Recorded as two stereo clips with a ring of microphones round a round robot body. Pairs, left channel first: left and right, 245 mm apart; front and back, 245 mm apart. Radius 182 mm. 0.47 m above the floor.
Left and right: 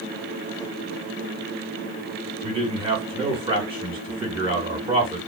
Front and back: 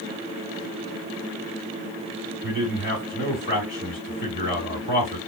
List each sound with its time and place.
2.4 s a man speaking: 30° right, 1.7 m